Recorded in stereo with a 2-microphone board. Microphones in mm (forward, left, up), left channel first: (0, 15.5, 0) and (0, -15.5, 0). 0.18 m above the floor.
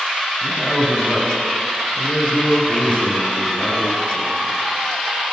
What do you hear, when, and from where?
0.4 s a man speaking: 10° right (ahead or behind), 1.7 m; by 4.5 s 65° left (ahead or behind), 3.5 m